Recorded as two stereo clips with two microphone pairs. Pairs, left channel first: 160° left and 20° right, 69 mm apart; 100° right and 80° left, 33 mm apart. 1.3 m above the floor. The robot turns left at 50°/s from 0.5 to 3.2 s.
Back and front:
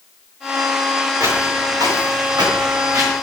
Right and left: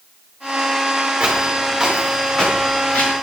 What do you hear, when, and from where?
1.2 s footsteps: 30° left, 8 m; by 3.1 s 60° right, 7 m